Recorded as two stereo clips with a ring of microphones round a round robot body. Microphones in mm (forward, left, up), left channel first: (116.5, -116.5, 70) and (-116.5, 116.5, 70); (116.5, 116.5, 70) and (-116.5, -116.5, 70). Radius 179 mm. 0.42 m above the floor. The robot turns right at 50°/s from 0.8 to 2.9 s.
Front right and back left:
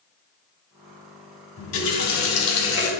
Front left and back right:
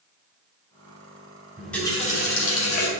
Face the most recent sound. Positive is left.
turn(degrees=15)